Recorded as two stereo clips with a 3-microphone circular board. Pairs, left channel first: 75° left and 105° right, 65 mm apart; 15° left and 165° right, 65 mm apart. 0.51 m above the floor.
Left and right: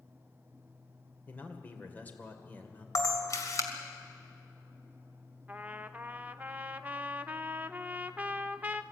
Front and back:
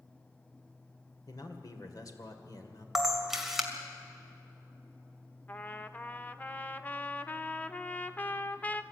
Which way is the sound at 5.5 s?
45° right.